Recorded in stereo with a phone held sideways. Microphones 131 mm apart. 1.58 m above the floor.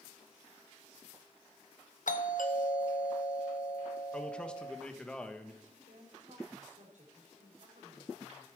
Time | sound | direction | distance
2.1 | a doorbell | 80° left | 1.1 m
4.1 | a man speaking | 5° left (ahead or behind) | 1.3 m
5.6 | a woman speaking | 70° right (ahead or behind) | 4 m